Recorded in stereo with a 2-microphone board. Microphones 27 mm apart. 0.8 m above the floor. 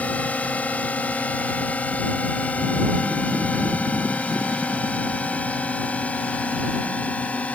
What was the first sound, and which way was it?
A drone, 65° left (ahead or behind).